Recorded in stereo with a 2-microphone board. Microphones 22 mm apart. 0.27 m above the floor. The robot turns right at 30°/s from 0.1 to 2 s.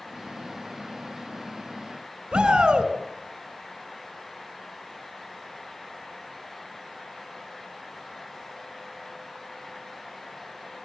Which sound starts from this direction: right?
A shout, at 2.3 s.